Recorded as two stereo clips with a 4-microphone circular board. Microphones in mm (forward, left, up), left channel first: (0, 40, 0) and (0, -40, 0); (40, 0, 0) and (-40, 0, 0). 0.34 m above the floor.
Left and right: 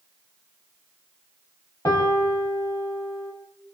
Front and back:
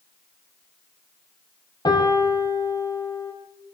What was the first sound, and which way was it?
A piano, 40° left.